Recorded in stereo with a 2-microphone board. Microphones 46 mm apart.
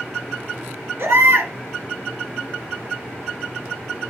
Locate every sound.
1.0 s a baby crying: 60° right (ahead or behind), 1.8 m